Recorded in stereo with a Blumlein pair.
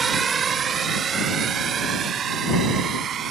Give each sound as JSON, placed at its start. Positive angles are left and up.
{"t": 0.0, "sound": "a drone", "azimuth_deg": -20}